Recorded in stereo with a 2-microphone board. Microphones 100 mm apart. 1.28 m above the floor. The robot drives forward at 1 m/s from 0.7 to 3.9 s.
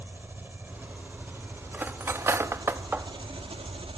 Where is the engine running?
20° right (ahead or behind), 3.5 m; by 4.0 s 70° right (ahead or behind), 1.3 m.